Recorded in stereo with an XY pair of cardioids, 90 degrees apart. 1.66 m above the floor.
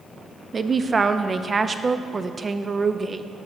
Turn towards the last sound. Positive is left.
turn(degrees=-35)